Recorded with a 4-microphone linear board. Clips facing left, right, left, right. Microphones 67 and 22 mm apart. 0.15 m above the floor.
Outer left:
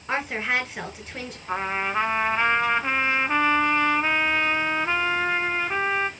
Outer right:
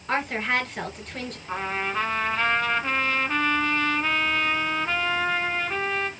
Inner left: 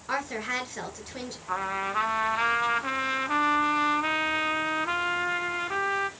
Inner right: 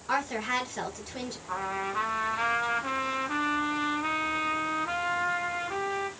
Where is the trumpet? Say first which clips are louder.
Outer left 2 dB, inner left 3 dB; 20° left (ahead or behind), 0.6 m.